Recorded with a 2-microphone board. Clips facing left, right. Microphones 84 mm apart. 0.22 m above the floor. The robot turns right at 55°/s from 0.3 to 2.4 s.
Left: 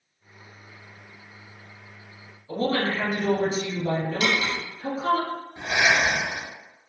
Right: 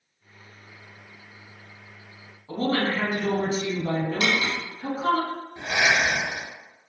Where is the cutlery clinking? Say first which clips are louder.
Even; 45° right (ahead or behind), 0.9 m.